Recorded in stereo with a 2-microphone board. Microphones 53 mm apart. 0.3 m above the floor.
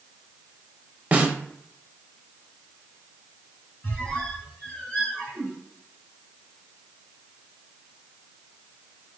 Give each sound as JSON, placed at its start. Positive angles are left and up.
{"t": 1.1, "sound": "a snare drum", "side_deg": -30, "distance_m": 0.8}
{"t": 3.8, "sound": "a squeak", "side_deg": 25, "distance_m": 1.6}